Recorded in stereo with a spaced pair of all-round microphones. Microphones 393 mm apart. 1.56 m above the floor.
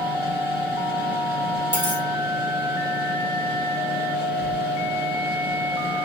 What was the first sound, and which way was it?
A machine running, 10° right (ahead or behind).